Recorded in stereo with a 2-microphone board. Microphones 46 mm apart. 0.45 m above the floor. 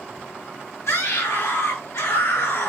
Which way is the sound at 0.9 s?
80° left.